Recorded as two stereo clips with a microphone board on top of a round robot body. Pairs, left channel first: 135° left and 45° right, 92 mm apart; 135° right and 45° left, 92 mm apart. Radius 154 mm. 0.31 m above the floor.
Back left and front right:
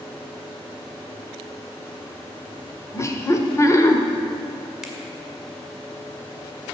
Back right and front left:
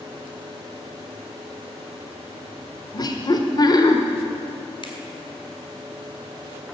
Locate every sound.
2.9 s laughter: 170° right, 1.3 m
4.8 s a finger snap: 130° right, 2.0 m